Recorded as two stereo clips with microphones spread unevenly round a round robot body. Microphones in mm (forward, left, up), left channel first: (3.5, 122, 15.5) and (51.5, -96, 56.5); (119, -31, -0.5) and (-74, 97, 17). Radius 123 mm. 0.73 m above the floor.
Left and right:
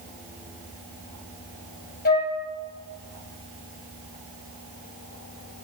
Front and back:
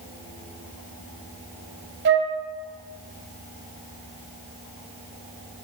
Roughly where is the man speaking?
I don't hear a man speaking.